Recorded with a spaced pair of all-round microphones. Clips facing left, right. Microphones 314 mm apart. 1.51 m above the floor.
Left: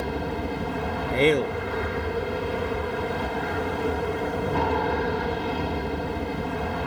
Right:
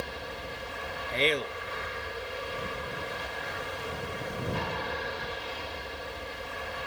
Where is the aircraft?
65° left (ahead or behind).